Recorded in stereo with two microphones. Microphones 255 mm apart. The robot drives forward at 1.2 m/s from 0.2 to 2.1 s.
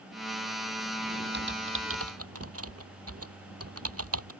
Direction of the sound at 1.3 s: 40° right (ahead or behind).